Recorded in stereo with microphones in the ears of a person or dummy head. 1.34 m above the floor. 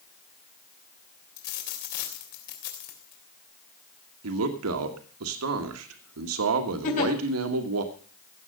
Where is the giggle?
45° left (ahead or behind), 4 m.